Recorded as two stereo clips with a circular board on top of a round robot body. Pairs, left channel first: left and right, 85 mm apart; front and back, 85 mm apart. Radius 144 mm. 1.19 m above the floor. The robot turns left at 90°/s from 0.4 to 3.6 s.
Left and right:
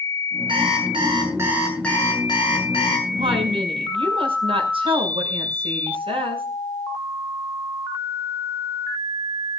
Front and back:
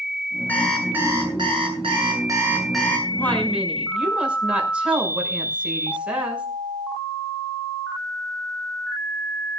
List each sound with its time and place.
0.5 s an alarm clock: 70° right, 7.5 m; by 3.0 s 65° left, 7.5 m
3.1 s a woman speaking: 55° right, 6 m; by 6.5 s 105° right, 6 m